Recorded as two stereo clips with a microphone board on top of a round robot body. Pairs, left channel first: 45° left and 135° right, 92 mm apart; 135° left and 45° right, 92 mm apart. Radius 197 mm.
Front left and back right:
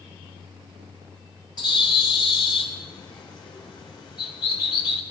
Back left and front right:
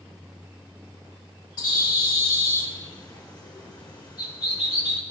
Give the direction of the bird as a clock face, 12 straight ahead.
9 o'clock.